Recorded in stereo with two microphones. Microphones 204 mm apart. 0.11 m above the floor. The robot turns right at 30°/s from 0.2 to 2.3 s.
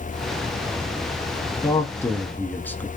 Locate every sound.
1.6 s a man speaking: 15° left (ahead or behind), 1.1 m; by 2.9 s 10° left (ahead or behind), 1.1 m